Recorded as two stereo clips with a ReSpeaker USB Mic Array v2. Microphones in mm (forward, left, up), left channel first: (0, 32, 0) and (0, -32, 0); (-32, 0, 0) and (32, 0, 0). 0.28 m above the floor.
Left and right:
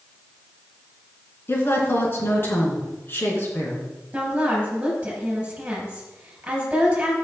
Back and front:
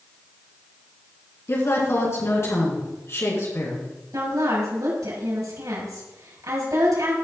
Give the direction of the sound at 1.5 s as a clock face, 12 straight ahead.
7 o'clock.